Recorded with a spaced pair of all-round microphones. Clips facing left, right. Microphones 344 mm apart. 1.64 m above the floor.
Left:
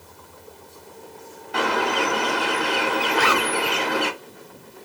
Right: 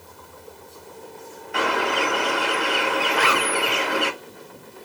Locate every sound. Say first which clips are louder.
1.5 s a bird: left 1 dB; 50° left (ahead or behind), 1.0 m
3.1 s a zipper: left 1 dB; 50° left (ahead or behind), 1.9 m